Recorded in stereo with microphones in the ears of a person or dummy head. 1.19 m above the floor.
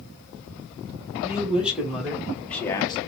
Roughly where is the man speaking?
Centre.